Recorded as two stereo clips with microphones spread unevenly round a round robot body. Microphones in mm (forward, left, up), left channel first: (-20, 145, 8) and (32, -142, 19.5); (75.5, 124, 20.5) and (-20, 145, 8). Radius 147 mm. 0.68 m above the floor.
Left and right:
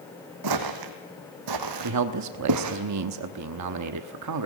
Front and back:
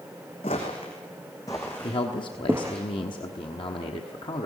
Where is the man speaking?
60° right, 1.1 m.